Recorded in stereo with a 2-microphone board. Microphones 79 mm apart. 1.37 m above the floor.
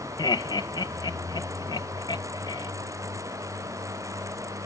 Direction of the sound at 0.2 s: 55° left (ahead or behind).